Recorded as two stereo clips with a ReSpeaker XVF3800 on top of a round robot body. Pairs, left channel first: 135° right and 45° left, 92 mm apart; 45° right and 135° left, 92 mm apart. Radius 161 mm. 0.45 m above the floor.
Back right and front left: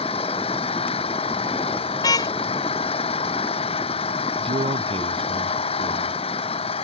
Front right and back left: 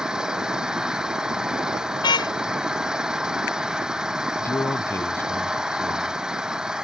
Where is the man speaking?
20° left.